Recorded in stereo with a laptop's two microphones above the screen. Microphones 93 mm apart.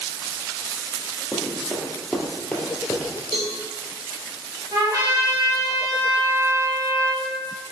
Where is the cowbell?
70° right (ahead or behind), 1.1 m.